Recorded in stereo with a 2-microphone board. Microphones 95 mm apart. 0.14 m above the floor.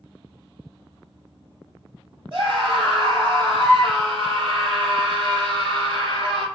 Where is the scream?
50° right (ahead or behind), 1.8 m.